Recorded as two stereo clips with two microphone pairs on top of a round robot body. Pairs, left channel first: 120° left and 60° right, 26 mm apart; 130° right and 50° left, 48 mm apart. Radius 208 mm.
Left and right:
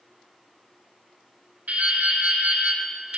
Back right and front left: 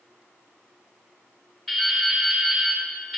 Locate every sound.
1.7 s dripping: 50° right, 3.5 m